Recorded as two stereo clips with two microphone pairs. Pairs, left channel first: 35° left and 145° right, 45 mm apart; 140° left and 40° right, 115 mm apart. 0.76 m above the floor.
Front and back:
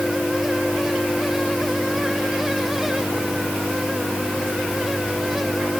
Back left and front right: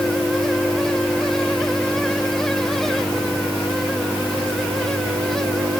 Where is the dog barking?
I don't hear a dog barking.